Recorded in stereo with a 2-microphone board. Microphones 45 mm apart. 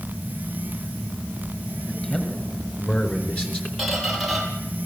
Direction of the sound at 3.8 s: Centre (ahead or behind).